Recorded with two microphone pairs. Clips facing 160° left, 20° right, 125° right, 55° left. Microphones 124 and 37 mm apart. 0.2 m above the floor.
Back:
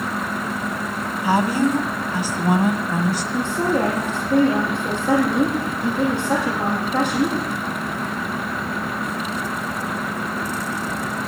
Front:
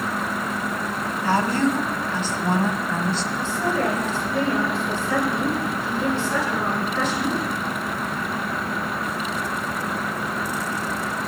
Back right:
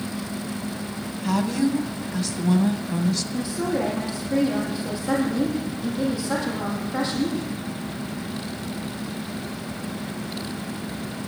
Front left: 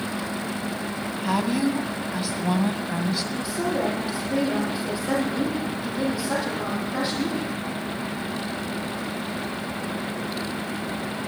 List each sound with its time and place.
1.2 s a woman speaking: 100° left, 1.3 m
3.3 s a woman speaking: 130° left, 7.5 m